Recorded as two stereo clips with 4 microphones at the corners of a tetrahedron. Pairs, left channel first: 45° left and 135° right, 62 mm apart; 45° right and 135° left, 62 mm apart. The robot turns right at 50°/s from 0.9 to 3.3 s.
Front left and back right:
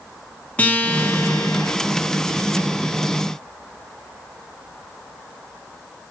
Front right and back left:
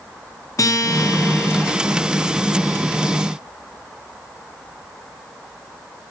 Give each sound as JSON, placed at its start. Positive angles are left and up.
{"t": 0.6, "sound": "a guitar", "azimuth_deg": -20, "distance_m": 0.6}